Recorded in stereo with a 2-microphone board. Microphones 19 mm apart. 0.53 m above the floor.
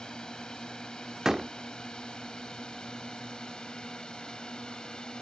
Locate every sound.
0.0 s a drone: 60° left (ahead or behind); by 5.2 s 65° left (ahead or behind)
1.2 s a door slam: 35° right (ahead or behind)